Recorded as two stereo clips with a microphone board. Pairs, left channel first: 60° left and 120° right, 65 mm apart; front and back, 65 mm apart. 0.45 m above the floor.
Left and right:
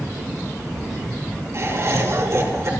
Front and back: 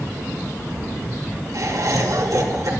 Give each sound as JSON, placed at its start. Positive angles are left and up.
{"t": 1.5, "sound": "laughter", "azimuth_deg": -160, "distance_m": 3.5}